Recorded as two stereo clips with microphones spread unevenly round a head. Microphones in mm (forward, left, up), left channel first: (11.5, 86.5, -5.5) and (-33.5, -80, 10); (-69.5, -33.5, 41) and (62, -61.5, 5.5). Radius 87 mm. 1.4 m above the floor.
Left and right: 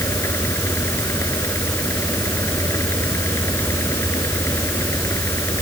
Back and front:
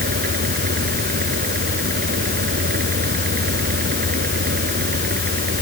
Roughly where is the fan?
Ahead.